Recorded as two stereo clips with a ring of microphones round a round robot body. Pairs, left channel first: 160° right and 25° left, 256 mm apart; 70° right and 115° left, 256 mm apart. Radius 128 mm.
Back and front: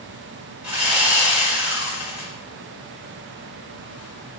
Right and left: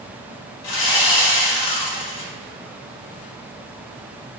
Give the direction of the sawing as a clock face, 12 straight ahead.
2 o'clock.